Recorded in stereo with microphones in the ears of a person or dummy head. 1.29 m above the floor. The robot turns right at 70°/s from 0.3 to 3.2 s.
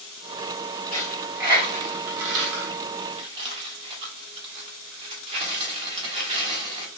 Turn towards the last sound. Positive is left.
turn(degrees=-30)  # may be behind; listen again after turning